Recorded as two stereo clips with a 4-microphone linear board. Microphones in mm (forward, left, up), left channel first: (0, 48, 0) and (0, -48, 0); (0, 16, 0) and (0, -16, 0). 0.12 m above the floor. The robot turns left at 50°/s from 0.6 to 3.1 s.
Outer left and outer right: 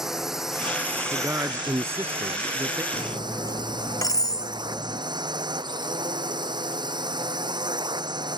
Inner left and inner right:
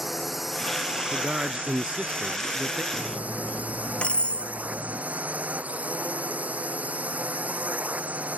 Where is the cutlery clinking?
45° left (ahead or behind); by 5.0 s 35° left (ahead or behind).